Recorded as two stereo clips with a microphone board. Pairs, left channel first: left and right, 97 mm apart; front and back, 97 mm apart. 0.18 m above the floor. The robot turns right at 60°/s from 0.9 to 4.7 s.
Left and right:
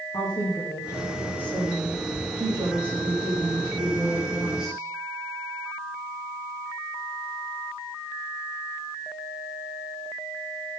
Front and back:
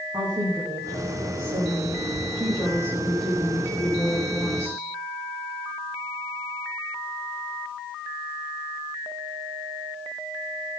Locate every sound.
0.1 s a woman speaking: 125° left, 8.5 m; by 4.8 s 5° right, 8.5 m